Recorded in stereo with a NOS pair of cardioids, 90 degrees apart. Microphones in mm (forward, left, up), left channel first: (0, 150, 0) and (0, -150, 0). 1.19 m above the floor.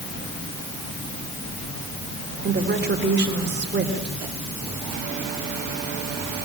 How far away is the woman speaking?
About 4 m.